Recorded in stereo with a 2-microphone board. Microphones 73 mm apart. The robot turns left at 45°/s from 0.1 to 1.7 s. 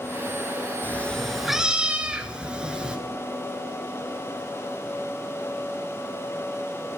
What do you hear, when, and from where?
0.8 s a cat meowing: 25° left, 1.2 m; by 3.0 s 15° right, 1.2 m